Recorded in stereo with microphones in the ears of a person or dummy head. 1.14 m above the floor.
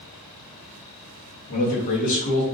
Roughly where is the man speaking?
Left.